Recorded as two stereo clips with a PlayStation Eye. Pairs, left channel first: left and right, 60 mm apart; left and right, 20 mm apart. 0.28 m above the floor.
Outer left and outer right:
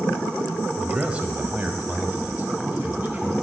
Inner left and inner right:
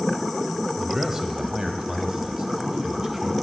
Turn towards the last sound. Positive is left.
turn(degrees=-30)  # may be behind; listen again after turning